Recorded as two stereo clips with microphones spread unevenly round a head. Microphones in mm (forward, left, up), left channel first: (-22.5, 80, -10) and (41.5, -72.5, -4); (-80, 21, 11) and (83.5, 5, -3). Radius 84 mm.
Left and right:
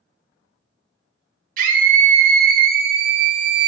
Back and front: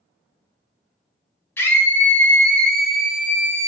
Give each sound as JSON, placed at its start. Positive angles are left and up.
{"t": 1.6, "sound": "a scream", "azimuth_deg": -110, "distance_m": 1.7}